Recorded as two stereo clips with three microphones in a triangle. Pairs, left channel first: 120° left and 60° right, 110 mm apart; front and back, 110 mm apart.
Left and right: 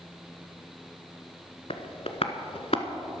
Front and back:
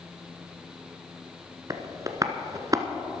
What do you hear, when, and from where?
1.7 s tapping: 125° left, 1.0 m